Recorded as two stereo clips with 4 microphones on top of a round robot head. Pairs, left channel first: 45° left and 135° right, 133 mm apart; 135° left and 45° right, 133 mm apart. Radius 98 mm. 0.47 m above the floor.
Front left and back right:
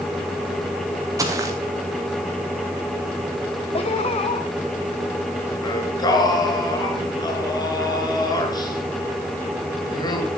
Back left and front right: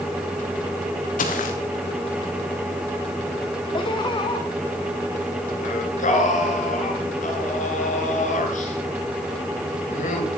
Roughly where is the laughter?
Left.